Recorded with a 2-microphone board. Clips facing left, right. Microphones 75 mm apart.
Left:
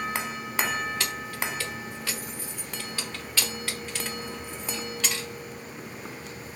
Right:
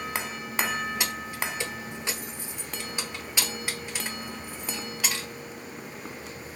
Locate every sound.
1.0 s keys jangling: 15° right (ahead or behind), 0.9 m; by 5.3 s 10° right (ahead or behind), 1.9 m